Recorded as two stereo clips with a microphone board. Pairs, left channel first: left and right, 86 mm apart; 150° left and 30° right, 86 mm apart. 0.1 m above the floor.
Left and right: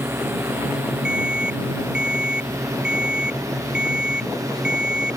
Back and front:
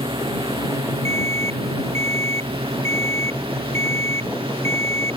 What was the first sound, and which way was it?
A drone, 30° right.